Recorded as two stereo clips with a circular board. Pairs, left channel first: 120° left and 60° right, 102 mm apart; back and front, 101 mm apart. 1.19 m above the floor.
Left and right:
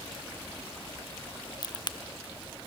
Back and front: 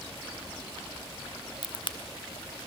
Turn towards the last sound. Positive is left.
turn(degrees=160)